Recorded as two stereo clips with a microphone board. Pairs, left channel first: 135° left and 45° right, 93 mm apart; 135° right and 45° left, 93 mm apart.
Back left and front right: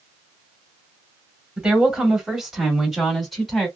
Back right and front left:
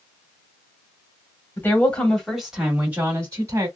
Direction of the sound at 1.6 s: 110° right.